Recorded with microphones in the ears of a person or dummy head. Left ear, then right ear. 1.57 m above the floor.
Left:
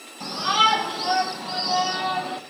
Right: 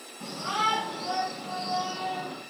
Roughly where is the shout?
Left.